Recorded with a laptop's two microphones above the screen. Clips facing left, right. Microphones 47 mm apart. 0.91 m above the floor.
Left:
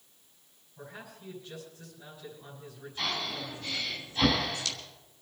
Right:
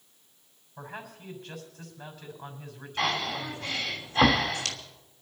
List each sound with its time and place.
0.8 s a man speaking: 85° right, 6 m
3.0 s breathing: 75° right (ahead or behind), 3 m